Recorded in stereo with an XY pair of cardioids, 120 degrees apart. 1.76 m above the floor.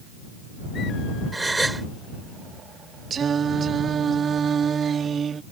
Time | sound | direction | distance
1.3 | a gasp | 10° right | ?
3.1 | singing | 40° right | ?